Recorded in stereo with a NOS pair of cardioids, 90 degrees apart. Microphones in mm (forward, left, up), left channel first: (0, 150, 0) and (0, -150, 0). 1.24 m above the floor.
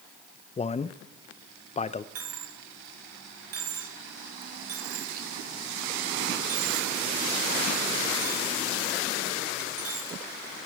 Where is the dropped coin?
55° right, 1.7 m.